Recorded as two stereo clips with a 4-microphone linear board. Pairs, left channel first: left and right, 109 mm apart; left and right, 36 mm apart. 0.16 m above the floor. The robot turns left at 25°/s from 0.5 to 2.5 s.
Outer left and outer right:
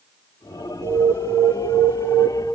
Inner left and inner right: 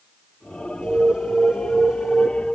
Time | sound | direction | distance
0.8 | an alarm | 25° right (ahead or behind) | 0.8 m